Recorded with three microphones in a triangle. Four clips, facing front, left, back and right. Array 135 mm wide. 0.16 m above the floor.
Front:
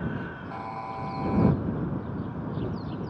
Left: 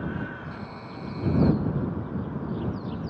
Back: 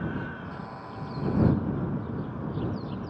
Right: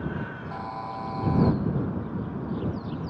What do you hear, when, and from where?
0.5 s a buzzer: 45° right